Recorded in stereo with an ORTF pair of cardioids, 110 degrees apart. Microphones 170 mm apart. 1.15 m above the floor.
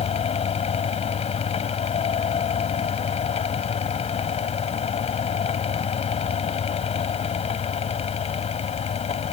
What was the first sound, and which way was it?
A fan, 40° left.